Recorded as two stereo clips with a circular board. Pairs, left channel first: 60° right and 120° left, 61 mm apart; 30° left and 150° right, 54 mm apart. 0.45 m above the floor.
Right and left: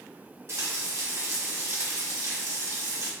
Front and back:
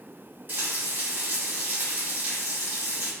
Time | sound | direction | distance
0.5 | frying | 160° left | 1.2 m